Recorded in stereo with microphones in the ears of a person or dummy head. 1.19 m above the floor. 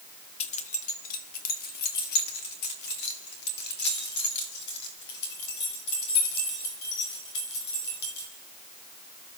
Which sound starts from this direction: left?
Keys jangling, at 0.4 s.